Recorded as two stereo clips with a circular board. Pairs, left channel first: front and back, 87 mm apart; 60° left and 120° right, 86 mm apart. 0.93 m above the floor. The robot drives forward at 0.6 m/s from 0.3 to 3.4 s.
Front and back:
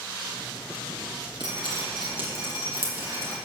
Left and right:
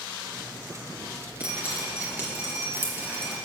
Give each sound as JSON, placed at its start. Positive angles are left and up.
{"t": 1.4, "sound": "dripping", "azimuth_deg": 165, "distance_m": 3.0}